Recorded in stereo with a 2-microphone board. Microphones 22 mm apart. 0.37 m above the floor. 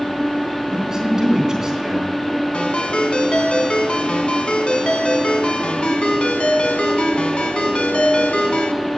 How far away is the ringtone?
About 1.6 m.